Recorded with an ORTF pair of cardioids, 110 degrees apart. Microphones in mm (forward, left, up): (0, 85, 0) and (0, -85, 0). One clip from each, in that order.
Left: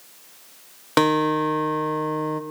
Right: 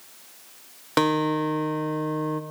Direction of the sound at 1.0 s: 15° left.